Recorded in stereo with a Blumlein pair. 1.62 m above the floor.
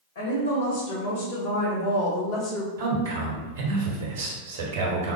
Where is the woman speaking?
65° left, 1.9 m; by 2.7 s 20° left, 0.6 m.